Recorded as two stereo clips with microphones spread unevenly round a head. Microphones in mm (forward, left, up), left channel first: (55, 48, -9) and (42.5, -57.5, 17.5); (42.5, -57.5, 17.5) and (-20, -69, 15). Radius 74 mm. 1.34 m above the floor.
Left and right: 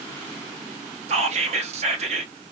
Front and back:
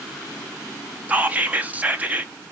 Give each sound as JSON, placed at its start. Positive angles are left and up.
{"t": 1.1, "sound": "whispering", "azimuth_deg": -115, "distance_m": 0.7}